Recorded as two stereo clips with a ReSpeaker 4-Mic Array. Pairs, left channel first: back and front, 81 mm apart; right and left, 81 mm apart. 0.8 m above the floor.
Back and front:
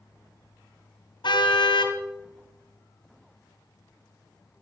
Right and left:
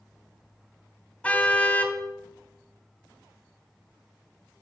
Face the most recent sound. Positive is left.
turn(degrees=-165)